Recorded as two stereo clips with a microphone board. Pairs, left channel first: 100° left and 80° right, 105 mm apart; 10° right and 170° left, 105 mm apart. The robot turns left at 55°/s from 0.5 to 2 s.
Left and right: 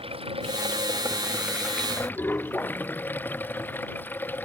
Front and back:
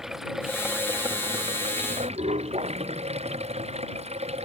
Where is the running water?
105° right; by 4.5 s 175° left.